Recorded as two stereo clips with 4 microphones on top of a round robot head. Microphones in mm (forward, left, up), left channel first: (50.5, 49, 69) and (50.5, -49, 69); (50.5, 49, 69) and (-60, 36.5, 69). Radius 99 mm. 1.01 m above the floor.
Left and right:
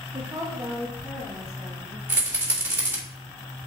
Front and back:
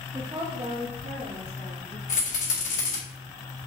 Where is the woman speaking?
125° right, 0.7 m; by 2.0 s 155° right, 2.5 m.